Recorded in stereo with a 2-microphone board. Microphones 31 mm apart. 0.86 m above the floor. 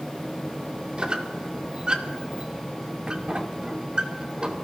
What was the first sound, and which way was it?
A squeak, 35° right (ahead or behind).